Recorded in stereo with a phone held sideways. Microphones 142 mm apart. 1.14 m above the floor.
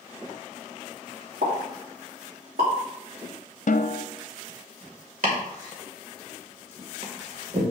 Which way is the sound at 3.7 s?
60° left (ahead or behind).